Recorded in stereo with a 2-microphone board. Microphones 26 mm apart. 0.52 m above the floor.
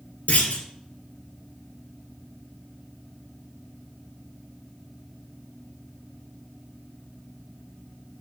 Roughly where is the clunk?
Left.